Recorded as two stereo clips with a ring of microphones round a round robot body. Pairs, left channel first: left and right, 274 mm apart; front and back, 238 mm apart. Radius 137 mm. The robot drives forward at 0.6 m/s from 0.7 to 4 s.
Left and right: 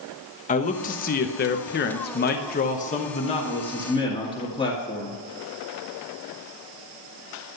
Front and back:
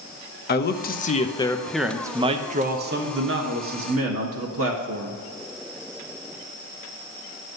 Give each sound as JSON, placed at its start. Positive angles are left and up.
{"t": 0.5, "sound": "a man speaking", "azimuth_deg": 35, "distance_m": 1.0}